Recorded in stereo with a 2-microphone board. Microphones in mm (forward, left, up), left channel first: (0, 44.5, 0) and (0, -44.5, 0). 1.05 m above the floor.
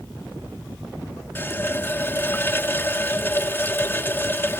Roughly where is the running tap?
Left.